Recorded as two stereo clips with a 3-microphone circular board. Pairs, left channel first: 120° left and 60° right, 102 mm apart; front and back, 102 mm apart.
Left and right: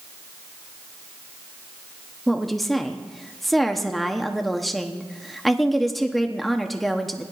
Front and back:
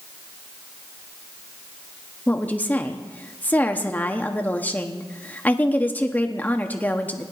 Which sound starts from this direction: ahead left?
A woman speaking, at 2.3 s.